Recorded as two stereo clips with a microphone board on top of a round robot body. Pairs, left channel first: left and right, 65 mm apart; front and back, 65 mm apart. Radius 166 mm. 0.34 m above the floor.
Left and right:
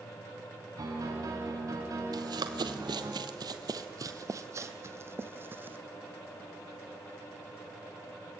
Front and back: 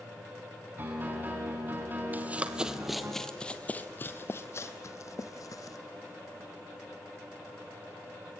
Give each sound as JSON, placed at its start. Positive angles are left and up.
{"t": 0.8, "sound": "a piano", "azimuth_deg": -120, "distance_m": 4.5}
{"t": 2.1, "sound": "running footsteps", "azimuth_deg": -115, "distance_m": 1.1}